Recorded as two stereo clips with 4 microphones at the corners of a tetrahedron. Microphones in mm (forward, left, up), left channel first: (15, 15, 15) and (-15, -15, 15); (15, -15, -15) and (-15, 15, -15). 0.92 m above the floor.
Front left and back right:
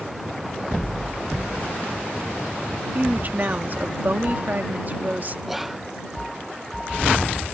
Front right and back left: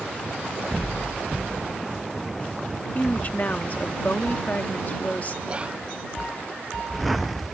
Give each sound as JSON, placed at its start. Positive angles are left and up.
{"t": 3.0, "sound": "a woman speaking", "azimuth_deg": -90}
{"t": 5.5, "sound": "whispering", "azimuth_deg": 150}